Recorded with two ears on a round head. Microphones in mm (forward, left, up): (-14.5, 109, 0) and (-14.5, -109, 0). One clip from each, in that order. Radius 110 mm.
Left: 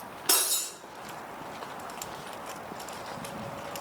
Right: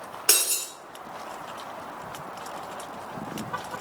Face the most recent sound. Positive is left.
turn(degrees=-60)  # may be behind; listen again after turning